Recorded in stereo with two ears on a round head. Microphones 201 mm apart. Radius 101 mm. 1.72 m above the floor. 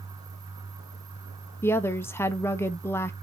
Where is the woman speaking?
10° left (ahead or behind), 0.7 m.